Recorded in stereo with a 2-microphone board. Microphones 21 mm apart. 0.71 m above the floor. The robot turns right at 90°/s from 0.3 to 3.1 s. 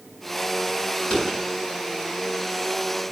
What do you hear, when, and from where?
1.0 s a door slam: 40° left (ahead or behind), 6.5 m; by 1.4 s 75° left (ahead or behind), 6.5 m